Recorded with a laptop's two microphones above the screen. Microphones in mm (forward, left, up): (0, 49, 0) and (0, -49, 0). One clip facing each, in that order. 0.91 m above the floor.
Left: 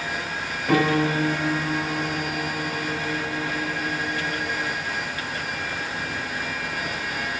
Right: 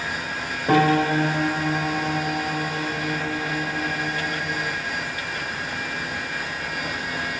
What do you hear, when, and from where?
0.7 s a piano: 30° right (ahead or behind), 5 m